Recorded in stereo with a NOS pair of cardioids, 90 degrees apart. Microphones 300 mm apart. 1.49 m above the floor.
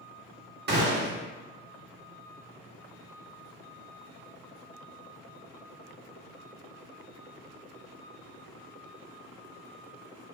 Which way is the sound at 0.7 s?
35° right.